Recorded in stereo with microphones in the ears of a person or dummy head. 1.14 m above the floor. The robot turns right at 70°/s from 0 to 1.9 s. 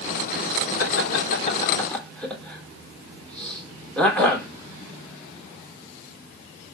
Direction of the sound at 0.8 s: 85° left.